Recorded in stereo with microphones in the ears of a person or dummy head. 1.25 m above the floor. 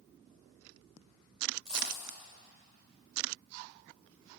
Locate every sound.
1.6 s a dropped coin: 30° right (ahead or behind), 2 m